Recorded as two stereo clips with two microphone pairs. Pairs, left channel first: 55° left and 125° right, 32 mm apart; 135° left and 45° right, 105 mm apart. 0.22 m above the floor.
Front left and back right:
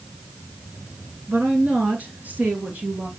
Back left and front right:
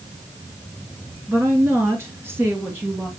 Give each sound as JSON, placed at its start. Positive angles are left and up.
{"t": 1.3, "sound": "a woman speaking", "azimuth_deg": -105, "distance_m": 3.0}